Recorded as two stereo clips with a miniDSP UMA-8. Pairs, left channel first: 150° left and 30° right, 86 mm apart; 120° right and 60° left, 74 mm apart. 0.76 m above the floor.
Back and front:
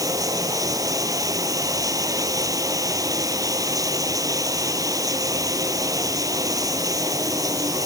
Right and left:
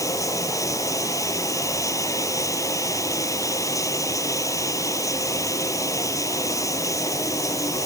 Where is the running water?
75° right.